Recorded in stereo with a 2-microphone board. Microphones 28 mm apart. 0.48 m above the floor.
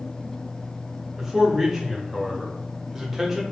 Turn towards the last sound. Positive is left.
turn(degrees=-15)  # may be behind; listen again after turning